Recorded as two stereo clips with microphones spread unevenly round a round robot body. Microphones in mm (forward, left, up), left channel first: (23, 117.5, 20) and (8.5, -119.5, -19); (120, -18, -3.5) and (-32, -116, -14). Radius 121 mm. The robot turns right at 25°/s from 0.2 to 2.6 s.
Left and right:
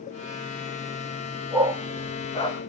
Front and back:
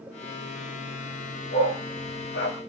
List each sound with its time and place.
1.5 s a dog barking: 5° right, 3.5 m; by 2.6 s 20° left, 3.5 m